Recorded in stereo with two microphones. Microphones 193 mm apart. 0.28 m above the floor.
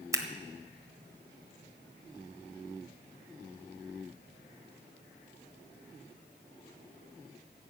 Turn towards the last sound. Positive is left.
turn(degrees=-15)  # may be behind; listen again after turning